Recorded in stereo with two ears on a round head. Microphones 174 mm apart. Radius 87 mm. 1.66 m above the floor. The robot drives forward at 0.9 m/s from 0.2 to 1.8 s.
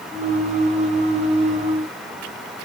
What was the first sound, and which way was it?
Only background noise.